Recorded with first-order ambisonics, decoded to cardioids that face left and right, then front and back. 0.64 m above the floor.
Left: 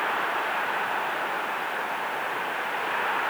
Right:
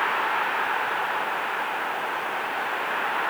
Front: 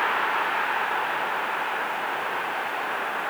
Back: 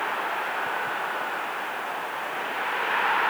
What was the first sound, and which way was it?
Only background noise.